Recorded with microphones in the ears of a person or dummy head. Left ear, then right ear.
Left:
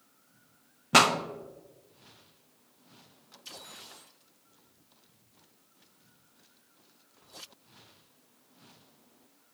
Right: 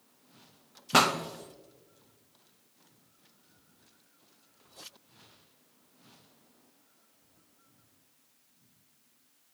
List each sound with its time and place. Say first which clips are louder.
0.9 s a pop: left 2 dB; 10° left (ahead or behind), 0.6 m